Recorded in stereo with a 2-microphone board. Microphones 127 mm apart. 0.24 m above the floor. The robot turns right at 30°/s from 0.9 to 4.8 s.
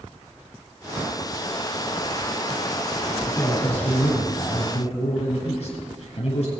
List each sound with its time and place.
3.3 s a man speaking: 15° left, 4.5 m; by 6.5 s 60° left, 4.5 m